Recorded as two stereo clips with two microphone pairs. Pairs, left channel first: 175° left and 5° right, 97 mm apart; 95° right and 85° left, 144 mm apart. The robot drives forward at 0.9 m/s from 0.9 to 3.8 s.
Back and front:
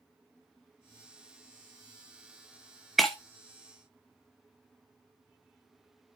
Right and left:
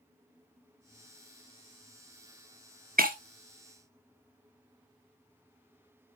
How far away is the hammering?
No hammering in this recording.